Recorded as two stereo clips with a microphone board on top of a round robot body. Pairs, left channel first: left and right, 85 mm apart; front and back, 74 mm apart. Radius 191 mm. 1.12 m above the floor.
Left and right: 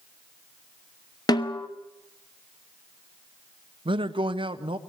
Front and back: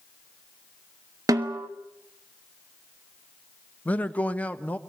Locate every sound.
1.3 s a snare drum: 135° left, 1.0 m
3.9 s a man speaking: 70° right, 1.4 m